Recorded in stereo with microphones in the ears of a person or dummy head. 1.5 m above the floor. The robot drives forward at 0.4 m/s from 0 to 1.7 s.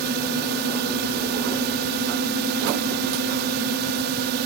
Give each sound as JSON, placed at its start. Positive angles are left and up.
{"t": 0.0, "sound": "a drone", "side_deg": -60}